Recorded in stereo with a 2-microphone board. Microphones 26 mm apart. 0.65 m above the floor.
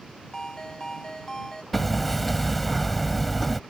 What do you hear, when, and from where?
0.3 s a ringtone: 25° left (ahead or behind)
1.7 s hammering: 5° left (ahead or behind)